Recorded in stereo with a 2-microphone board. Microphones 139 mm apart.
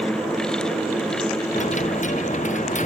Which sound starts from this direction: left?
A dropped coin, at 1.6 s.